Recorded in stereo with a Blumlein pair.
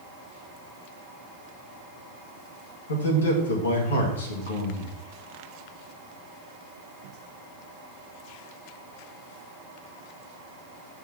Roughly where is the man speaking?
Ahead left.